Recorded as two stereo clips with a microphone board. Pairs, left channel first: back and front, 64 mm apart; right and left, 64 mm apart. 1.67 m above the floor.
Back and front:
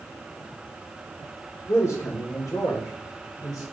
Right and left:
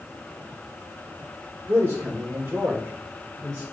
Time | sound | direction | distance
1.7 | a man speaking | 140° left | 1.3 m